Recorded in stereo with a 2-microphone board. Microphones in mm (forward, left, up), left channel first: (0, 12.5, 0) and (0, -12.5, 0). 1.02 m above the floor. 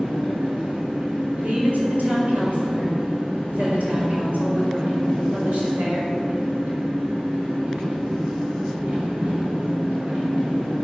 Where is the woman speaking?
75° right (ahead or behind), 4.5 m.